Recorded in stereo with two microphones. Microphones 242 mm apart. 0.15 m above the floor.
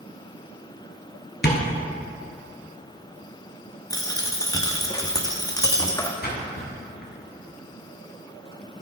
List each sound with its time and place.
1.4 s tapping: 45° left (ahead or behind), 1.2 m
3.9 s a dropped coin: 15° left (ahead or behind), 0.8 m
6.2 s a splash: 45° left (ahead or behind), 2 m